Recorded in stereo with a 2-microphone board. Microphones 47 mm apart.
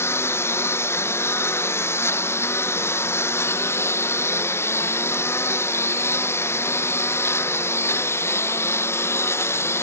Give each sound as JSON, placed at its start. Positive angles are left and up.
{"t": 0.0, "sound": "a lawn mower", "side_deg": 85}